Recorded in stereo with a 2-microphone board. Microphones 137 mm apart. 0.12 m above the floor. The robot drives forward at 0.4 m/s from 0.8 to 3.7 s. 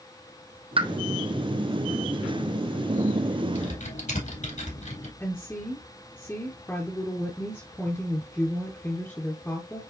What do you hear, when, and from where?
0.8 s a pop: 45° right (ahead or behind), 0.8 m; by 0.9 s 40° right (ahead or behind), 0.8 m
3.5 s typing on a keyboard: 65° left (ahead or behind), 4 m; by 5.1 s 60° left (ahead or behind), 4 m
5.2 s a woman speaking: 15° left (ahead or behind), 1.6 m